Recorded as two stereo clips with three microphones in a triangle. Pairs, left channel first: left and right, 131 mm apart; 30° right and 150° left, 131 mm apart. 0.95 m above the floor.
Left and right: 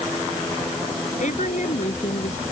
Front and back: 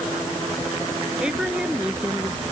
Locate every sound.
1.2 s a woman speaking: 70° left; by 2.4 s 65° left